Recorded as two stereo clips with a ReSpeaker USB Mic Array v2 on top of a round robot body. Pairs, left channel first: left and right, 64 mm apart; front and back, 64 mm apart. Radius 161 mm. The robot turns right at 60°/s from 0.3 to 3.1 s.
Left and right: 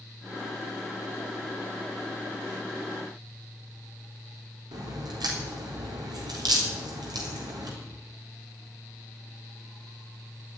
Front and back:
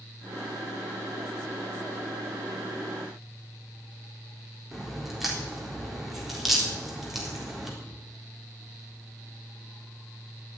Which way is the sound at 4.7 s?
90° right.